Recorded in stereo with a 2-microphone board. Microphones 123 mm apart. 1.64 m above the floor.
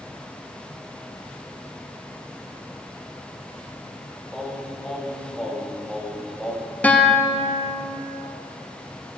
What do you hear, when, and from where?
4.3 s singing: centre (ahead or behind), 1.5 m
6.8 s a guitar: 10° left (ahead or behind), 0.7 m